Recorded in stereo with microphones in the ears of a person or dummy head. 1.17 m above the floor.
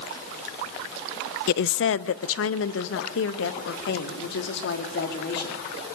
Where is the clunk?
No clunk in this recording.